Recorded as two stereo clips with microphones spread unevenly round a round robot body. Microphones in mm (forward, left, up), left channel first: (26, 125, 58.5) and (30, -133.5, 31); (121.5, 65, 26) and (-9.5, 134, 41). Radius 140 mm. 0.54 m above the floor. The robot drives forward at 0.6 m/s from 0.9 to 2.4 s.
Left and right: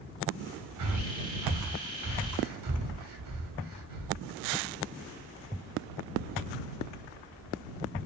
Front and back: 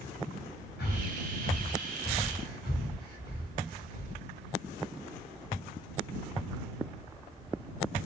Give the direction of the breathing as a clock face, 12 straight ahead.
2 o'clock.